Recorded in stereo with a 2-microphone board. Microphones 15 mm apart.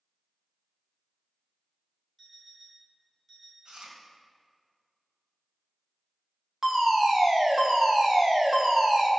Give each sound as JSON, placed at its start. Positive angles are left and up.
{"t": 2.2, "sound": "an alarm clock", "side_deg": 5, "distance_m": 2.0}
{"t": 3.6, "sound": "chewing", "side_deg": -75, "distance_m": 1.9}
{"t": 6.6, "sound": "a fire alarm", "side_deg": -30, "distance_m": 2.0}